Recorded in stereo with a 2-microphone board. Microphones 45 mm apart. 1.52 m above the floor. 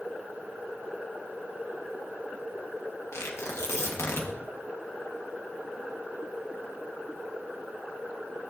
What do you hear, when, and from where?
3.1 s tearing paper: 75° left (ahead or behind), 1.7 m